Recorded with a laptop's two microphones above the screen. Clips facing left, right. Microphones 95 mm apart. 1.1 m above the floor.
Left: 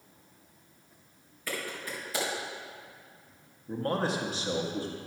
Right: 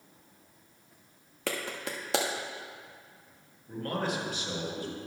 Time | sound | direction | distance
1.5 | a clap | 85° right | 1.2 m
3.7 | a man speaking | 30° left (ahead or behind) | 1.2 m